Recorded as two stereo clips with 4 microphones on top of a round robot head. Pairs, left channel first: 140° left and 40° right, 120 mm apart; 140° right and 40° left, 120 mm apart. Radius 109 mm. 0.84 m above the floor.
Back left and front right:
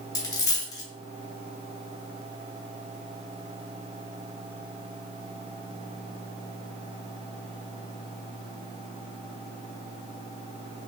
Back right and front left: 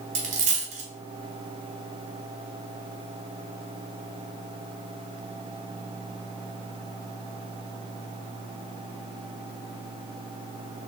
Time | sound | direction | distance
0.1 | a dropped coin | 75° left | 0.7 m